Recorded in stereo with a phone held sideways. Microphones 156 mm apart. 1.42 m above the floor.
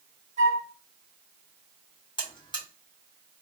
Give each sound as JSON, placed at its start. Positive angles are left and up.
{"t": 0.4, "sound": "a flute", "side_deg": -45, "distance_m": 1.3}
{"t": 2.2, "sound": "a buzzer", "side_deg": 30, "distance_m": 1.1}